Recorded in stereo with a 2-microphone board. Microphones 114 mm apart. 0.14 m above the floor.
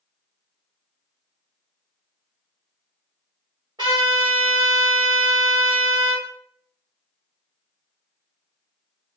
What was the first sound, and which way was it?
A trumpet, 45° right (ahead or behind).